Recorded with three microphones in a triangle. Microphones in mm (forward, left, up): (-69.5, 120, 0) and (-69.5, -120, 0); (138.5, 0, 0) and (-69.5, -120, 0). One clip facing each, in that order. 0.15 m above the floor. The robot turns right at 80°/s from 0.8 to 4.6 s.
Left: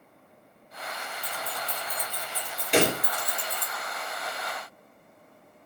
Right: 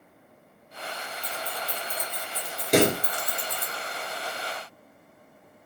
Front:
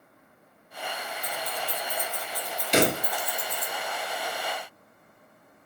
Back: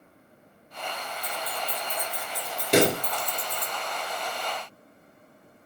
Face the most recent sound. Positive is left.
turn(degrees=25)